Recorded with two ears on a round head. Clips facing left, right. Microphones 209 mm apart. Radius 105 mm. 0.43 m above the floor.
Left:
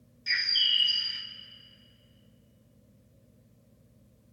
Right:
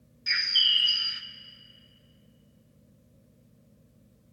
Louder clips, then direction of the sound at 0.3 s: Right 2 dB; 10° right (ahead or behind).